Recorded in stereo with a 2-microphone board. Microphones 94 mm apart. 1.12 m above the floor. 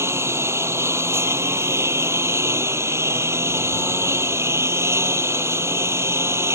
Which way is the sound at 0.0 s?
30° right (ahead or behind).